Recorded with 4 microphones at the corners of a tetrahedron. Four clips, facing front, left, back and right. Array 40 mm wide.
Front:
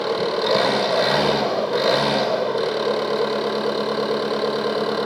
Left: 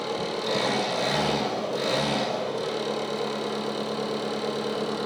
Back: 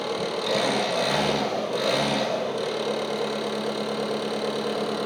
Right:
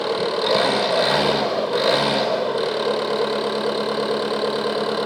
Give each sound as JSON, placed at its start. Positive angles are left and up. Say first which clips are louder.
{"t": 0.0, "sound": "an engine running", "louder": "right 8 dB, front 6 dB", "azimuth_deg": -65, "distance_m": 3.0}